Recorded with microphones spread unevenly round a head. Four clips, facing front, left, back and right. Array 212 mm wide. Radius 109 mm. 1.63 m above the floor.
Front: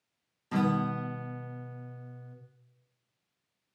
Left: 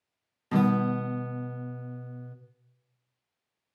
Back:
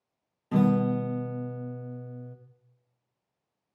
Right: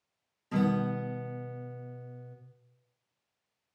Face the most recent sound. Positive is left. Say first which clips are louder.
# left 4 dB, back 5 dB
turn(degrees=125)